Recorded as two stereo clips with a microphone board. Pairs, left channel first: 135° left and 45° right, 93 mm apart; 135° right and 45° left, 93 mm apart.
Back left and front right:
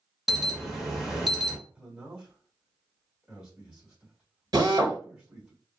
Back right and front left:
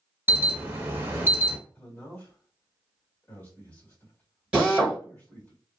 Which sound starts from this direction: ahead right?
A drill, at 4.5 s.